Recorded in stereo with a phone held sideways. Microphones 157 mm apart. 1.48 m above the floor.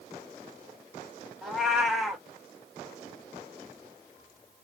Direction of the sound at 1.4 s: Centre (ahead or behind).